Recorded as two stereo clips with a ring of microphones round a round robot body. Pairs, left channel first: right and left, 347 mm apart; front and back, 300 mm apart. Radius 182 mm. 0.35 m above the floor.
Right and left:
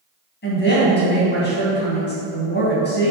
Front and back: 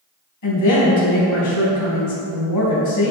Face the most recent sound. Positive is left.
turn(degrees=-30)